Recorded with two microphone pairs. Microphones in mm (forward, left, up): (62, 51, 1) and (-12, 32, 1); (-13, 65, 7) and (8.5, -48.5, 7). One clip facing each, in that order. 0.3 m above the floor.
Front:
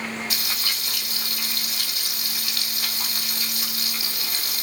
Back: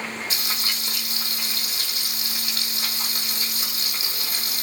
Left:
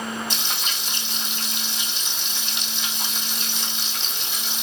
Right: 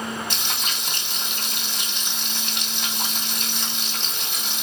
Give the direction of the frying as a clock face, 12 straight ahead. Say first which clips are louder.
Even, even; 4 o'clock.